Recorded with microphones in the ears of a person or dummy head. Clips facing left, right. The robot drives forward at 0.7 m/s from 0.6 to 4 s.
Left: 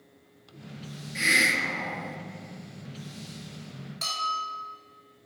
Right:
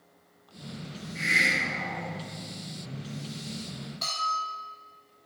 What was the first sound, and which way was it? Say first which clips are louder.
A hiss: left 3 dB; 75° left (ahead or behind).